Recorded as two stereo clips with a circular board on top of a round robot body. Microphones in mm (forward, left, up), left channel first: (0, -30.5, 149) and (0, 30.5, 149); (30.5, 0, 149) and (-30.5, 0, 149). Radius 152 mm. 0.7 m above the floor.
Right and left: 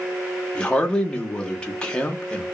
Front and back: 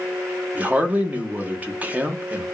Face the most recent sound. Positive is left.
turn(degrees=-150)